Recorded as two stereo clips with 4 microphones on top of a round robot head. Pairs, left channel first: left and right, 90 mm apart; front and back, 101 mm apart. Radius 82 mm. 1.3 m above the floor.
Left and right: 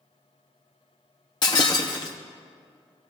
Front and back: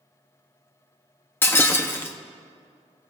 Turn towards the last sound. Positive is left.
turn(degrees=55)